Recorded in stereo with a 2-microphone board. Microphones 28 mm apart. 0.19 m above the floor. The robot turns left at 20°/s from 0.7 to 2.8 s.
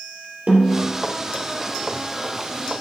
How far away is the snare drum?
About 4 m.